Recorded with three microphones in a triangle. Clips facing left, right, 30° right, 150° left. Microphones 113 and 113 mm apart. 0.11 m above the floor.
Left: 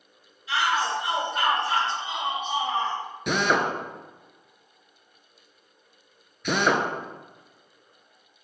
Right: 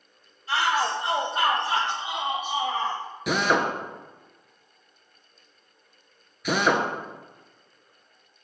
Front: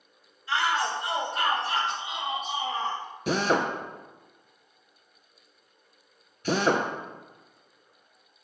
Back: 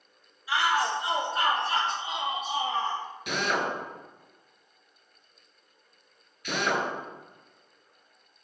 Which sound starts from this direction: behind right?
A shout, at 0.5 s.